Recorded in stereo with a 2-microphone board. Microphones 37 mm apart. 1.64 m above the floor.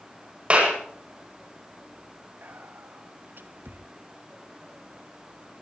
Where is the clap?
35° right (ahead or behind), 8.5 m.